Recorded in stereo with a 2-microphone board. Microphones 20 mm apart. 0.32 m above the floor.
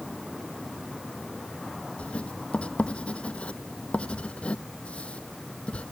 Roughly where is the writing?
Left.